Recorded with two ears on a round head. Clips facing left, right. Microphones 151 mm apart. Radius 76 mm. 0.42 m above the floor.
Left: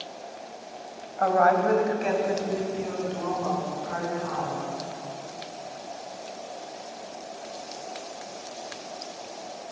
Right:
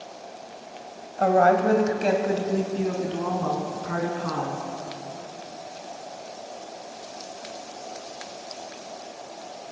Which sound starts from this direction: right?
A woman speaking, at 1.2 s.